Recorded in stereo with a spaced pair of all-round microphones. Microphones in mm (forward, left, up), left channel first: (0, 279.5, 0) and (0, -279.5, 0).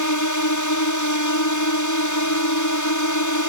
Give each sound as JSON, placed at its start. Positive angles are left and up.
{"t": 0.0, "sound": "a drone", "side_deg": 30}